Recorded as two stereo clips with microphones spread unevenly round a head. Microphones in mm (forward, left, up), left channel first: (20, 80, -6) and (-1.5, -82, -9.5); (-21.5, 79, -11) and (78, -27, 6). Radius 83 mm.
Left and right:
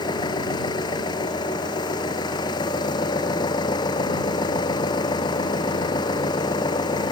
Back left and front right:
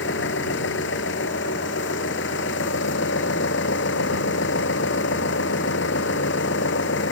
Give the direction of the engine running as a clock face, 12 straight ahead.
7 o'clock.